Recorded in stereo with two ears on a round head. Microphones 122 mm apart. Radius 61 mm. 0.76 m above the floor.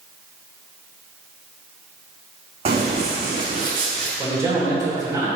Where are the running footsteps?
50° right (ahead or behind), 2.5 m; by 4.1 s 75° right (ahead or behind), 3 m.